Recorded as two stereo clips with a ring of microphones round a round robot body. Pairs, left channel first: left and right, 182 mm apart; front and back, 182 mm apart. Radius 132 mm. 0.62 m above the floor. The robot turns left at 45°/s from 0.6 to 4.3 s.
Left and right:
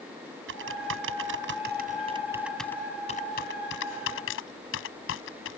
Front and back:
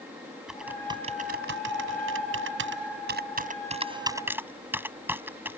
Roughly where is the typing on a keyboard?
Right.